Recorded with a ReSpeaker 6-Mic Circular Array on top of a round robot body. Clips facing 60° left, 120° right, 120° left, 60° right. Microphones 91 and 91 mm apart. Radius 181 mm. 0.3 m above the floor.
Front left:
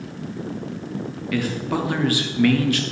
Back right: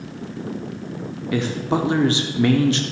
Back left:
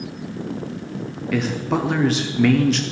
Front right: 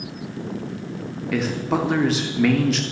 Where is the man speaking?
150° right, 1.4 m.